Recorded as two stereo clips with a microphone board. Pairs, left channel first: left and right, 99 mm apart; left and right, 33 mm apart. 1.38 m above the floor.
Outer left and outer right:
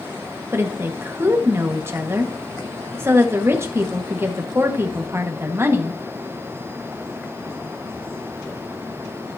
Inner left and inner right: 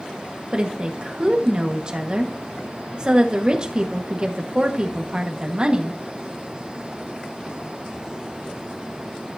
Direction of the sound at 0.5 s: 30° right (ahead or behind).